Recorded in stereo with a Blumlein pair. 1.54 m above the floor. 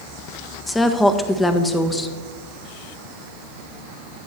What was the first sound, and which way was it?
A woman speaking, 10° left.